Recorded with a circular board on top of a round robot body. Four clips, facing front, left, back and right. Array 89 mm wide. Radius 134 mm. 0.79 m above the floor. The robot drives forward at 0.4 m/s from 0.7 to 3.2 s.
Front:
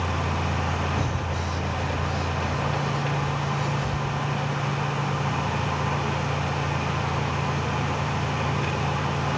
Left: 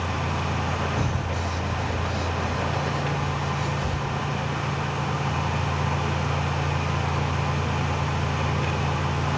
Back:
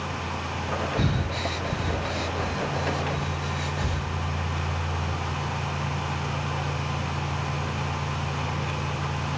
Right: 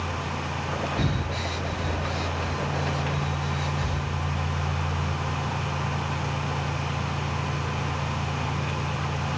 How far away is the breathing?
About 0.5 m.